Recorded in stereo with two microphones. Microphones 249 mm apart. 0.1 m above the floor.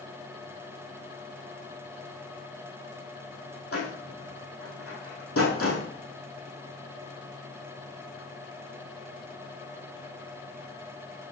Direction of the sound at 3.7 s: 65° left (ahead or behind).